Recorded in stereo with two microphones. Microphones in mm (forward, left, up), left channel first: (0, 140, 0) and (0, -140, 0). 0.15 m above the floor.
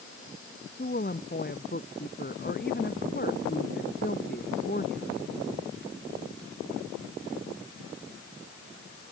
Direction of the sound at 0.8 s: 35° left (ahead or behind).